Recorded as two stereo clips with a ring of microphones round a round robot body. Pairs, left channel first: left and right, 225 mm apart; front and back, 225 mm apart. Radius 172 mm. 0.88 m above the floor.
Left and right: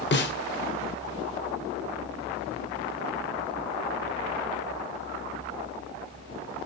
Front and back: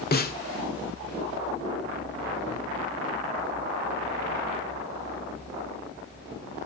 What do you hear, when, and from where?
0.1 s a snare drum: 50° left, 2 m